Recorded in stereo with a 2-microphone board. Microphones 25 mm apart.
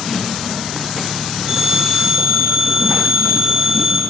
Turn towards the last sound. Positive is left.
turn(degrees=-30)  # may be behind; listen again after turning